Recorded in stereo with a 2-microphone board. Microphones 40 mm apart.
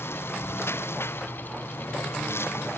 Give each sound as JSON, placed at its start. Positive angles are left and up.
{"t": 0.0, "sound": "a lawn mower", "side_deg": 90}